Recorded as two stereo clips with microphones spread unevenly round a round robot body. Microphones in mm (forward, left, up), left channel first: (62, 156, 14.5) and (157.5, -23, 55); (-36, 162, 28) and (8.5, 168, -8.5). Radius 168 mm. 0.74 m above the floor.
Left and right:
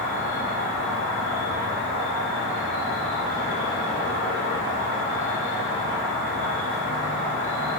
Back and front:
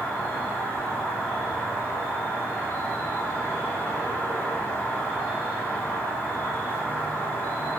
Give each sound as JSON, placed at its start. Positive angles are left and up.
{"t": 0.0, "sound": "an insect", "azimuth_deg": 115, "distance_m": 1.8}